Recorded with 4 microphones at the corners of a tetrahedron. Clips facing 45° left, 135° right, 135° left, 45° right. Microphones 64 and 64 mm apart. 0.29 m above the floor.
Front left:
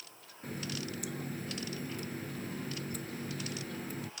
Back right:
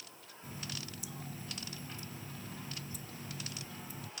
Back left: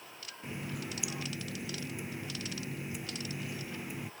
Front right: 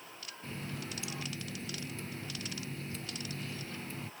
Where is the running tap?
60° left.